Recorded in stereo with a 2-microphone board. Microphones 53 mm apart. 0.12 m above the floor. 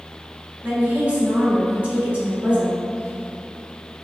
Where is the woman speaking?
30° right (ahead or behind), 1.5 m.